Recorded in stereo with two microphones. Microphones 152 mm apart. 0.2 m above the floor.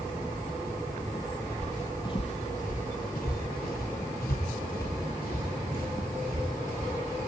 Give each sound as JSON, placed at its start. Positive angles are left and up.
{"t": 1.6, "sound": "footsteps", "side_deg": 5, "distance_m": 1.4}